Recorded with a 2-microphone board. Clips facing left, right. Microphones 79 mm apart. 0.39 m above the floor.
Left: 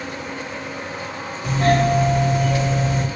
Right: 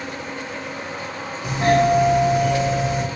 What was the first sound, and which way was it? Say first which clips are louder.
A doorbell: right 1 dB; 15° right (ahead or behind).